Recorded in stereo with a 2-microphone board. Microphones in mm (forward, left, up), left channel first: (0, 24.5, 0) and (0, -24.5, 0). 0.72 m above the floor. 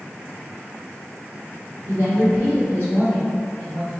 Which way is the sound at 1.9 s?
75° left (ahead or behind).